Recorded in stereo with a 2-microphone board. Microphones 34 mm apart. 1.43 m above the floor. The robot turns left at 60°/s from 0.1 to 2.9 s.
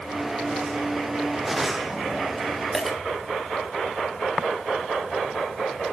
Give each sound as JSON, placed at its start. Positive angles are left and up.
{"t": 2.7, "sound": "a dropped coin", "side_deg": 5, "distance_m": 2.0}